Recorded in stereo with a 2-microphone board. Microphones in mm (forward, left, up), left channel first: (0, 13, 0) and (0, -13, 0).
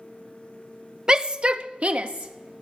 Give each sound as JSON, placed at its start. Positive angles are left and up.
{"t": 1.1, "sound": "a shout", "side_deg": -25, "distance_m": 0.6}